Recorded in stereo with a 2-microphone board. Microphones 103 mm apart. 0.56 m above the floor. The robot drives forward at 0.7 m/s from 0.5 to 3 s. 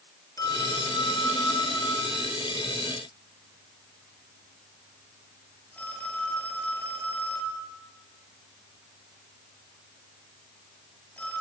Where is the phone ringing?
35° left (ahead or behind), 1.4 m; by 11.4 s 15° left (ahead or behind), 3 m.